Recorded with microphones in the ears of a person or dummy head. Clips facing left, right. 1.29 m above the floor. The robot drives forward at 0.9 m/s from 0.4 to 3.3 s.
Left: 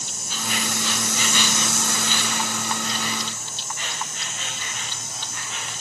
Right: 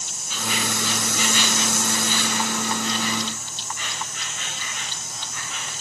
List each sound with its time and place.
0.0 s an insect: 40° left (ahead or behind), 1.2 m; by 5.8 s 25° left (ahead or behind), 1.9 m